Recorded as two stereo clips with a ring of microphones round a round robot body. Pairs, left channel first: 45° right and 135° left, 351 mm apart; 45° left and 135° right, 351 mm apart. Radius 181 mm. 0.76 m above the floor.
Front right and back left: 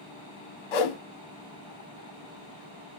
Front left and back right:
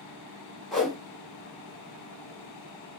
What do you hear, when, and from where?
0.7 s a whoosh: 45° right, 1.0 m